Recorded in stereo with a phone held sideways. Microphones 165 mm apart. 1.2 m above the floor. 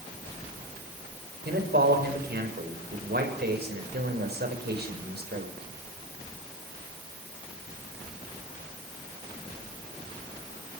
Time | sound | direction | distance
1.4 | a man speaking | 80° right | 6 m